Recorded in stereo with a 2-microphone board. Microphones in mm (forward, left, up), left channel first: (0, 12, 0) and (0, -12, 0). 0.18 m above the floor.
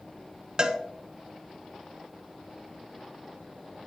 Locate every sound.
0.6 s a cowbell: 40° right (ahead or behind), 0.6 m